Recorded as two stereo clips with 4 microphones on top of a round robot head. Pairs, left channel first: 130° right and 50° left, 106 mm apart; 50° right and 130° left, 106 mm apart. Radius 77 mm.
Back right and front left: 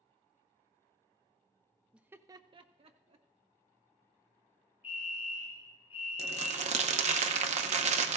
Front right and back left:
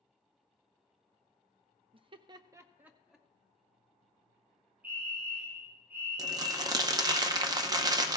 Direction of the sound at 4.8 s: 160° right.